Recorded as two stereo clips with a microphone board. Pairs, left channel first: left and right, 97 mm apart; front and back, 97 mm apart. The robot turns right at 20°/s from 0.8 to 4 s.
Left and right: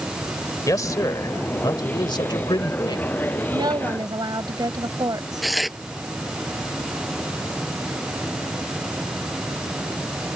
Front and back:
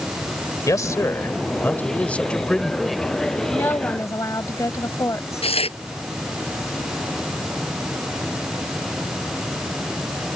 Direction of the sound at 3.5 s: 60° right.